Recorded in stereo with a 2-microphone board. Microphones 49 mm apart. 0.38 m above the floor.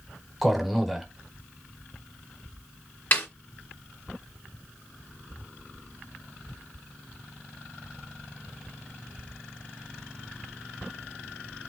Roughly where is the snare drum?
Left.